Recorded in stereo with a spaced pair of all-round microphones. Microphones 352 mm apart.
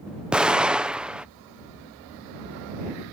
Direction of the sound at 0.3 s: Centre (ahead or behind).